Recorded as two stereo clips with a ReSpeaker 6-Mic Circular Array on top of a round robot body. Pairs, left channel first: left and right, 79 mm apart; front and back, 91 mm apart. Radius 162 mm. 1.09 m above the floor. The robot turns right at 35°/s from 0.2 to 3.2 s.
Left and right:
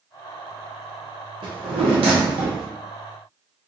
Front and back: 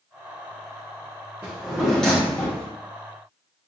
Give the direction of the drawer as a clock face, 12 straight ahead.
4 o'clock.